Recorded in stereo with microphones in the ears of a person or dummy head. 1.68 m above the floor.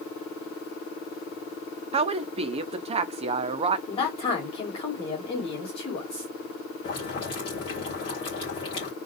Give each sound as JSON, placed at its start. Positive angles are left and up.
{"t": 1.9, "sound": "a woman speaking", "side_deg": -35, "distance_m": 0.5}
{"t": 3.9, "sound": "a man speaking", "side_deg": 30, "distance_m": 1.9}
{"t": 6.8, "sound": "boiling", "side_deg": 30, "distance_m": 2.5}